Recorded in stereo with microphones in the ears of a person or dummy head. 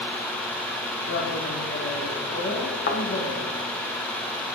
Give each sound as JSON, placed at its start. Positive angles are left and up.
{"t": 1.1, "sound": "a woman speaking", "side_deg": 70, "distance_m": 2.5}
{"t": 2.9, "sound": "a thud", "side_deg": 55, "distance_m": 2.0}